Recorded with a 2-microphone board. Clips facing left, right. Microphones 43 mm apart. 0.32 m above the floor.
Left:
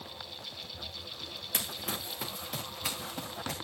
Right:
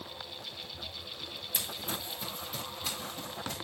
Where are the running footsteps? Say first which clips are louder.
Left 1 dB; 75° left (ahead or behind), 2 m; by 3.5 s 85° left, 3 m.